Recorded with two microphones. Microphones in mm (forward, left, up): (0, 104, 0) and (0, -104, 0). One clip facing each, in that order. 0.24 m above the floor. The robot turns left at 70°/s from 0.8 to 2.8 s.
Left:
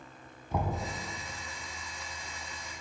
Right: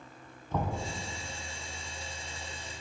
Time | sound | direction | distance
0.5 | knocking | 10° left (ahead or behind) | 1.0 m